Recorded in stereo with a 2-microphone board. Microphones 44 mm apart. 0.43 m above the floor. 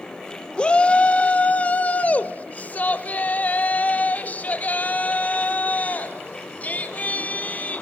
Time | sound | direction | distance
0.6 | a shout | 20° left (ahead or behind) | 1.0 m